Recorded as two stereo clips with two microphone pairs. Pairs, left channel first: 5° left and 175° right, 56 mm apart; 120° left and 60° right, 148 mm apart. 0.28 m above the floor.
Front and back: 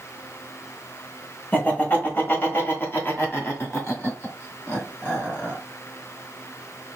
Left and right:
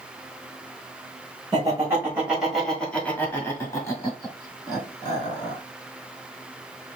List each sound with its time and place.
1.5 s laughter: 30° right, 1.2 m; by 5.6 s 60° left, 3 m